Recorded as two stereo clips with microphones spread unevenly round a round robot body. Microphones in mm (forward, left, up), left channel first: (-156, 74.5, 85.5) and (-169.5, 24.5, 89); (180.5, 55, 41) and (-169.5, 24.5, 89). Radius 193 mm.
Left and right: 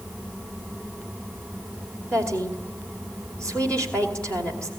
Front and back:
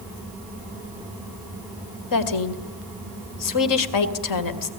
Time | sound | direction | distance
2.1 | a woman speaking | 5° left | 2.5 m